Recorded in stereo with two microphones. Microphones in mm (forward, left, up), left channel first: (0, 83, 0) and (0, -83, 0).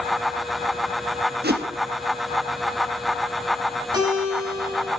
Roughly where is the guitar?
Right.